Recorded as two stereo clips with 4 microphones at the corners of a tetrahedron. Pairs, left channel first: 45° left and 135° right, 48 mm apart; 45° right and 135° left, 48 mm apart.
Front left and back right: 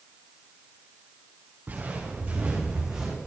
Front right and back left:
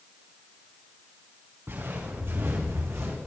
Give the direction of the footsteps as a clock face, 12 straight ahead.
6 o'clock.